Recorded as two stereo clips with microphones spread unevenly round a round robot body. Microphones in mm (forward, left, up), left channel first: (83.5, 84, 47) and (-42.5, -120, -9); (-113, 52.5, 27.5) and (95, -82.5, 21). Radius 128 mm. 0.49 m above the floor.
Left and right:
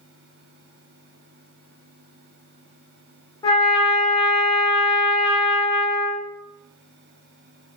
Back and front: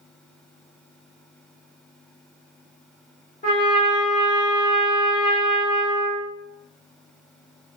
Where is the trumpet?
145° left, 1.1 m.